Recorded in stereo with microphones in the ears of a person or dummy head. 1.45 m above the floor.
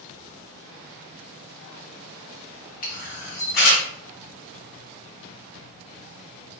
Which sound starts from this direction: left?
A camera shutter, at 2.8 s.